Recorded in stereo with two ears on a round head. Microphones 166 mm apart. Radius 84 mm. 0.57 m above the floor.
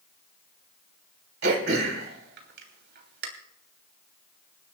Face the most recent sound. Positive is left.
turn(degrees=-65)  # may be behind; listen again after turning